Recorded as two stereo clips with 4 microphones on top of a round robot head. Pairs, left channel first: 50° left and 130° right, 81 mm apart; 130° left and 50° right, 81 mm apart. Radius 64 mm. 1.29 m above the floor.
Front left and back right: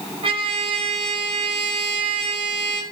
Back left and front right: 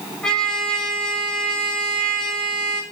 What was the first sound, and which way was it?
A trumpet, 150° right.